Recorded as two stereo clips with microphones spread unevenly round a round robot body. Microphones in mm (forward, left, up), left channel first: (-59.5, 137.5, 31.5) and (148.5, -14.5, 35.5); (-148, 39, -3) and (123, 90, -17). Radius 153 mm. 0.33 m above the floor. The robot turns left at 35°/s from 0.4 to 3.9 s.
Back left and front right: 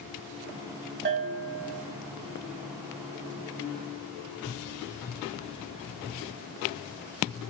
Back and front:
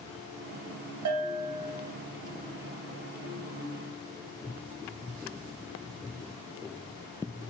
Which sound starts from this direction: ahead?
A bell, at 1.1 s.